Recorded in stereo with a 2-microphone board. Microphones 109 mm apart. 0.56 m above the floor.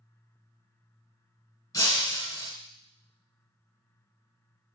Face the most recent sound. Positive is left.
turn(degrees=30)  # may be behind; listen again after turning